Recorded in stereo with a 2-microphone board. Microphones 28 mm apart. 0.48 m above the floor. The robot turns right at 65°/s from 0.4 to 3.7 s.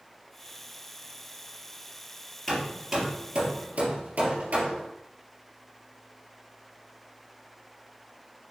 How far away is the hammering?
About 3 m.